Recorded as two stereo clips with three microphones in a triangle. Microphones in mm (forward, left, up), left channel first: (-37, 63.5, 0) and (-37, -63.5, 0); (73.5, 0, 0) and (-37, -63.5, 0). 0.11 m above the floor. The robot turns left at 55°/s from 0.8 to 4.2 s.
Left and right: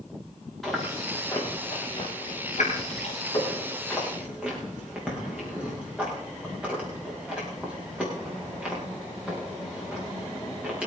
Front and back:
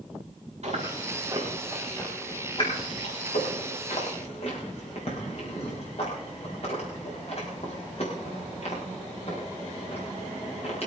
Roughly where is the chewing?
Behind.